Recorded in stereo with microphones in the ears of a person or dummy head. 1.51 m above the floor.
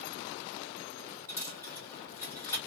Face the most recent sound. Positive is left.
turn(degrees=10)  # may be behind; listen again after turning